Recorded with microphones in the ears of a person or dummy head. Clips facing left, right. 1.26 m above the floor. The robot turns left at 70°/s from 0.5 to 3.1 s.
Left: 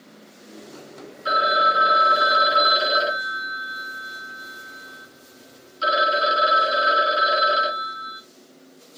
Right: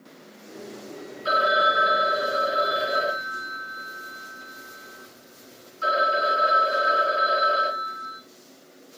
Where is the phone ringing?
170° left, 1.7 m; by 8.2 s 40° left, 1.7 m.